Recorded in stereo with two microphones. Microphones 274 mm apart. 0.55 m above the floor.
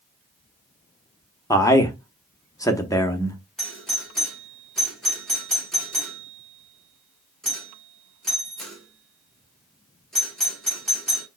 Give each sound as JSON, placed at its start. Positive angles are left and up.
{"t": 1.5, "sound": "a man speaking", "side_deg": 15, "distance_m": 0.7}
{"t": 3.6, "sound": "a doorbell", "side_deg": 0, "distance_m": 1.5}